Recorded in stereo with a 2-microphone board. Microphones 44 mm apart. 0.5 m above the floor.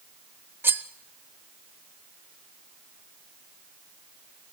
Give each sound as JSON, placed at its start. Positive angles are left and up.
{"t": 0.6, "sound": "cutlery clinking", "side_deg": -60, "distance_m": 0.9}